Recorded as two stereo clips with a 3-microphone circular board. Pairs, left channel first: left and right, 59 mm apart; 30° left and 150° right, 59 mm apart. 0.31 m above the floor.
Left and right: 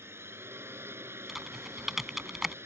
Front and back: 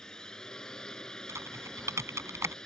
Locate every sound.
0.0 s a drone: 50° right
1.3 s typing on a keyboard: 175° right